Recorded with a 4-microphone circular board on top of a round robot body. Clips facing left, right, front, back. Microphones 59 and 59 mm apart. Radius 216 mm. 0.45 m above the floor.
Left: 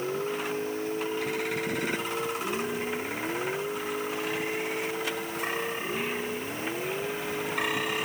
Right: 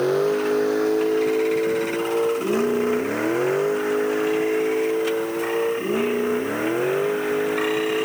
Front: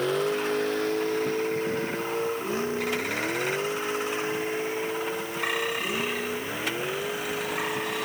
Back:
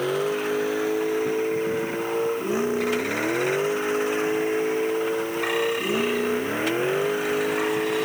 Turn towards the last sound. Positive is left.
turn(degrees=-115)